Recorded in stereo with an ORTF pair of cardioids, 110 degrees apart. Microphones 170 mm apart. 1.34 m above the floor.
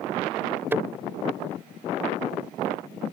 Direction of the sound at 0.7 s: 15° right.